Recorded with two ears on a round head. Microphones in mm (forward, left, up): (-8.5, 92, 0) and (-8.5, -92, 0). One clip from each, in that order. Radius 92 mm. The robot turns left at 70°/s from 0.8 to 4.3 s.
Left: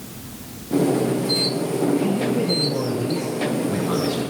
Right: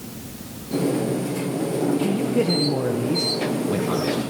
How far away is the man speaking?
About 1.0 m.